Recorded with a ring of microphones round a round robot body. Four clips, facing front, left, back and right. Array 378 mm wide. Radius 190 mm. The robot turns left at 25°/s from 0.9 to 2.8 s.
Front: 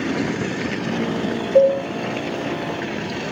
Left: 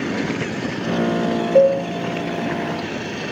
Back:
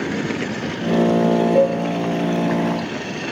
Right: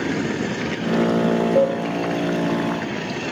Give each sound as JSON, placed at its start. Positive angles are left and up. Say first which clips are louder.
{"t": 1.6, "sound": "a cowbell", "louder": "left 8 dB, front 7 dB", "azimuth_deg": 45, "distance_m": 3.5}